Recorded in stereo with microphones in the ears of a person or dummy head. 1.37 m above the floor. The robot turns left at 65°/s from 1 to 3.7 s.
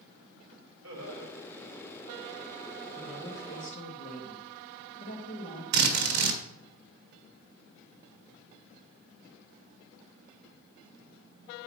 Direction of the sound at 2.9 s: 165° right.